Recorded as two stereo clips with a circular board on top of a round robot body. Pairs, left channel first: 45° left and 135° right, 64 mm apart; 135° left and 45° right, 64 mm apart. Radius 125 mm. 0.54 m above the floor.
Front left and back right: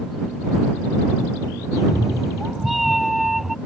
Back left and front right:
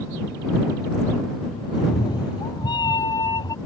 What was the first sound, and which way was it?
A cat meowing, 135° left.